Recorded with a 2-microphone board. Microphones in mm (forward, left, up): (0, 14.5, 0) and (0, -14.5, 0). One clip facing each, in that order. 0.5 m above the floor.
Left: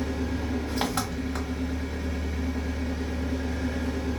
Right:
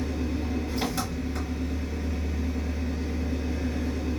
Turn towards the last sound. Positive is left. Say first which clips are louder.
# even
turn(degrees=80)